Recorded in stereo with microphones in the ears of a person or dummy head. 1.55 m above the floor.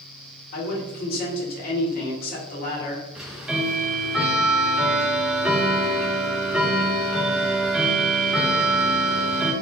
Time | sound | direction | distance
0.5 | a man speaking | 50° left (ahead or behind) | 1.7 m
3.1 | ticking | 5° right (ahead or behind) | 0.7 m